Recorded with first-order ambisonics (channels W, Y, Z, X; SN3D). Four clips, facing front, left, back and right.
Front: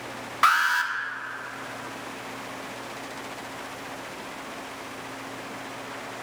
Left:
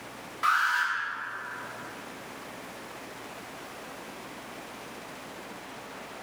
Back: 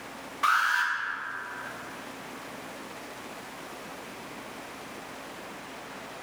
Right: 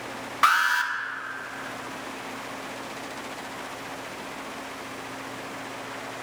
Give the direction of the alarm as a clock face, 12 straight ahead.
1 o'clock.